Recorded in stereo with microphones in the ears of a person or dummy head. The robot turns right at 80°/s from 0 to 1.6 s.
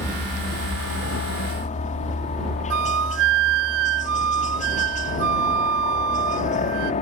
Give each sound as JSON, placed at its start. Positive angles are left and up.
{"t": 0.0, "sound": "a helicopter", "azimuth_deg": 10}
{"t": 2.7, "sound": "a flute", "side_deg": -65}